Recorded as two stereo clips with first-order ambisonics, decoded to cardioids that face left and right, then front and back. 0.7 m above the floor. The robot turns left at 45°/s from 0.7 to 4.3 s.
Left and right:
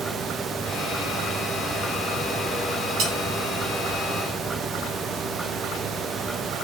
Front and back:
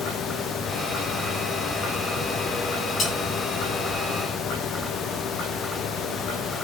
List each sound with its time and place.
3.0 s cutlery clinking: 55° right, 2.5 m; by 3.1 s 65° right, 2.5 m